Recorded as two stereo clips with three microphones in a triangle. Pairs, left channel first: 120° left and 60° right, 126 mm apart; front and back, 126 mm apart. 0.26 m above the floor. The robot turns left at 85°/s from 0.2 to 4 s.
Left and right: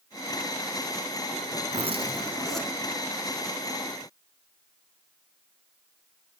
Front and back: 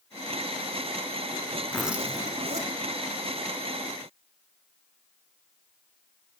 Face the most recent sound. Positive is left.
turn(degrees=85)